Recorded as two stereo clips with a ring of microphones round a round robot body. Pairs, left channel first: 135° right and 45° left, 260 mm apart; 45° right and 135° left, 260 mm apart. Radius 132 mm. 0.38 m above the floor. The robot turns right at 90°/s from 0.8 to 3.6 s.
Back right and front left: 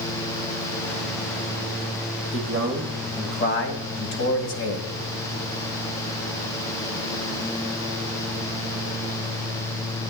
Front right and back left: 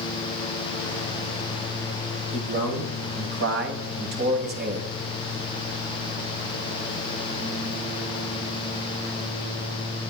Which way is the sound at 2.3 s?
70° left.